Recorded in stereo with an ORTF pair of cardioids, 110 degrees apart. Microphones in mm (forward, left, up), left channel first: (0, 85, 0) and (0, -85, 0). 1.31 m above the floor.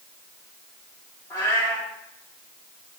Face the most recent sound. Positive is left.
turn(degrees=20)